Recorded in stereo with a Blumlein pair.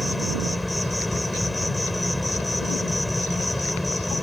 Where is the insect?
5° left.